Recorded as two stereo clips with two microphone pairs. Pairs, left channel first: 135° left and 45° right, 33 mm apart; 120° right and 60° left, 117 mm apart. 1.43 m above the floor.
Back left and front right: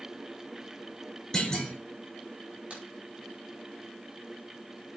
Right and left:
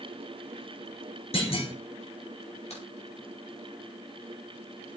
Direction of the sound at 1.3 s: 155° right.